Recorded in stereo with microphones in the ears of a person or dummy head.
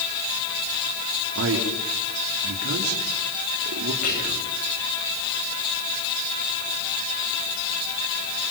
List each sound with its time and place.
1.4 s a man speaking: 85° right, 4.5 m
4.0 s whispering: 45° left (ahead or behind), 8.5 m